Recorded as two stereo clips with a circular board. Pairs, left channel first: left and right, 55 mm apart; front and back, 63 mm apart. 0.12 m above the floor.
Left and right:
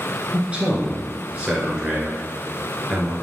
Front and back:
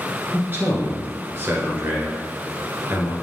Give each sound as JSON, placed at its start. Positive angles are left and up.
{"t": 0.3, "sound": "a man speaking", "azimuth_deg": -145, "distance_m": 1.3}